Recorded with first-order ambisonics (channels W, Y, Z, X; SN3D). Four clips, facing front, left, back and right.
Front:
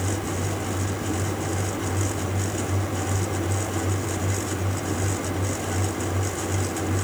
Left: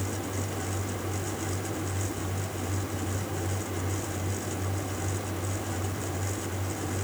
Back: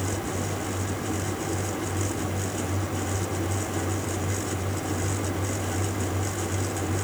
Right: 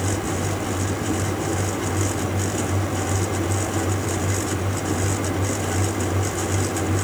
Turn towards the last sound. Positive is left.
No sound to turn to.